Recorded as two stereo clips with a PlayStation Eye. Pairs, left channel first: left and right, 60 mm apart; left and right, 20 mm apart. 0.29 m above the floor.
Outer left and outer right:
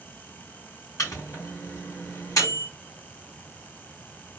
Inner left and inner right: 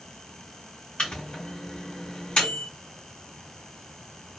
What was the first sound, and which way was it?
A microwave, 65° left (ahead or behind).